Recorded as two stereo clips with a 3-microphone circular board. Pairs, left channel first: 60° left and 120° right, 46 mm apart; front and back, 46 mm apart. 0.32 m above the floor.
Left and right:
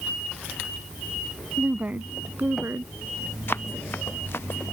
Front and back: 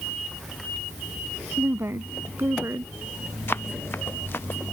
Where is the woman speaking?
175° right; by 2.9 s 160° right.